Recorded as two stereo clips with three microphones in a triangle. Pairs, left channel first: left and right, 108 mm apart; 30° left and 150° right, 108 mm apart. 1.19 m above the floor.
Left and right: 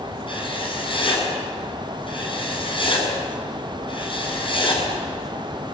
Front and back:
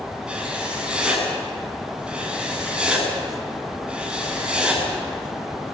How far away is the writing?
About 8.5 m.